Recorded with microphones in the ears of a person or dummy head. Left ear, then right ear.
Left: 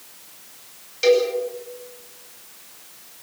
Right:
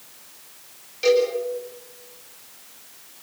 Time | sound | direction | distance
1.0 | a cowbell | 10° left (ahead or behind) | 10 m